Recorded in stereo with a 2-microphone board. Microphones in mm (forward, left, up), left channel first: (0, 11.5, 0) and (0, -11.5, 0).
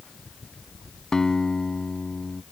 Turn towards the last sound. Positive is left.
turn(degrees=25)  # may be behind; listen again after turning